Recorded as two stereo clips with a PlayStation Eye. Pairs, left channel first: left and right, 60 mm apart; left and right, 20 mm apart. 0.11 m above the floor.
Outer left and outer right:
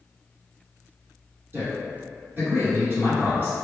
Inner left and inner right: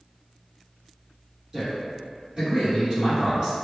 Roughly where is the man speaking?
Right.